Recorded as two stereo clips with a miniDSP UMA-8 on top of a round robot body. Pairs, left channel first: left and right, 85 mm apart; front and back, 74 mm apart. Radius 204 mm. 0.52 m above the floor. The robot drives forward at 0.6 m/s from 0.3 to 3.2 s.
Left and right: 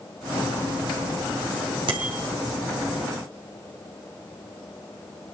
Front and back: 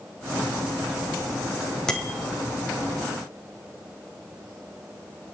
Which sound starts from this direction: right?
A bicycle bell, at 1.9 s.